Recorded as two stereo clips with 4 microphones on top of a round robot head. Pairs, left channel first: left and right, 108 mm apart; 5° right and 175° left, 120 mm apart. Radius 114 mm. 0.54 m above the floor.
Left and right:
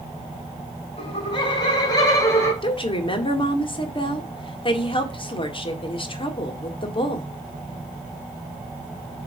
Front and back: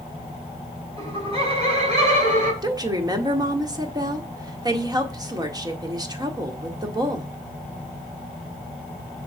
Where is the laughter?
130° left, 4.5 m; by 2.5 s 155° left, 5 m.